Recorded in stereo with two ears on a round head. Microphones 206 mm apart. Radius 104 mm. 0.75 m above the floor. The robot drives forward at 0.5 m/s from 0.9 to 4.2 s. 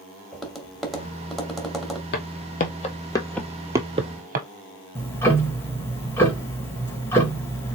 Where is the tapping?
Centre (ahead or behind), 1.3 m.